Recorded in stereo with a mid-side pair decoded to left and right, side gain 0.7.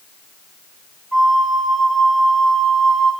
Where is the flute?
10° right, 0.9 m.